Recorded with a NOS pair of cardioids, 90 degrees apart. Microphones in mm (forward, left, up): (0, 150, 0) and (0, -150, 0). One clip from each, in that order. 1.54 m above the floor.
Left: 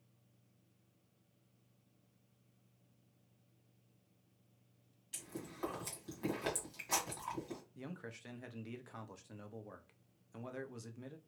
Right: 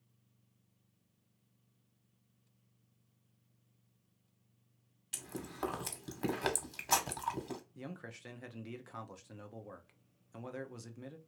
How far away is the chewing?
About 1.2 m.